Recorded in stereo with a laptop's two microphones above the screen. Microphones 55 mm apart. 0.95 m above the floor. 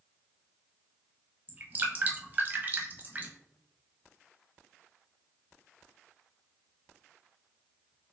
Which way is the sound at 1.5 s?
30° right (ahead or behind).